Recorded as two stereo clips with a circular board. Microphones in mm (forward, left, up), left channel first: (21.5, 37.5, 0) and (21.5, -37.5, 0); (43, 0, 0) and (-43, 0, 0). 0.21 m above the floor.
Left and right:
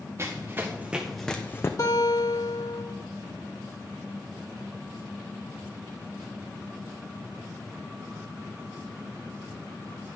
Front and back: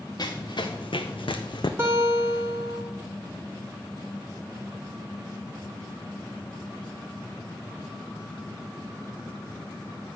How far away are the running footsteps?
About 1.3 m.